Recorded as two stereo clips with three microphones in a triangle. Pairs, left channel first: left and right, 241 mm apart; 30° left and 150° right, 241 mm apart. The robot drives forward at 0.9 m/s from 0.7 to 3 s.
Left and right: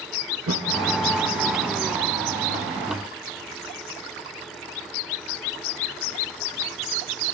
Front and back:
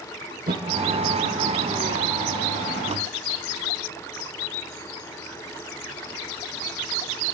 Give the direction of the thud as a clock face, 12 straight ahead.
3 o'clock.